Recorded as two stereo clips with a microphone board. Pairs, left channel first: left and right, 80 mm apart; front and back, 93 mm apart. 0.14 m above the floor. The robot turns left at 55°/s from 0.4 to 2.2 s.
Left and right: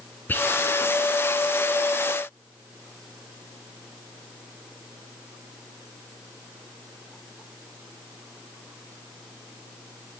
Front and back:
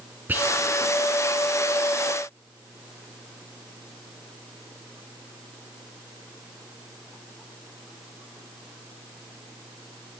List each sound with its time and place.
0.3 s whispering: 130° left, 1.2 m; by 0.5 s 125° left, 1.2 m